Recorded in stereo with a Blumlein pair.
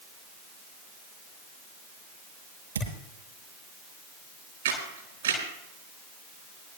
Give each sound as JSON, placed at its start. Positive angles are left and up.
{"t": 2.8, "sound": "a thud", "azimuth_deg": -70, "distance_m": 9.5}
{"t": 4.7, "sound": "a camera shutter", "azimuth_deg": -65, "distance_m": 6.5}